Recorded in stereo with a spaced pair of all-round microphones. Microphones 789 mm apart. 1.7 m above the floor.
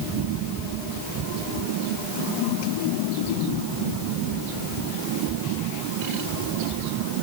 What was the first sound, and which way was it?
Only background noise.